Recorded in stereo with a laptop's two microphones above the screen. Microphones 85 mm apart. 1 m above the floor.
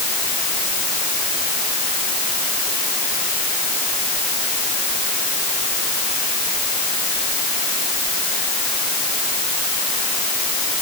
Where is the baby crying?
I don't hear a baby crying.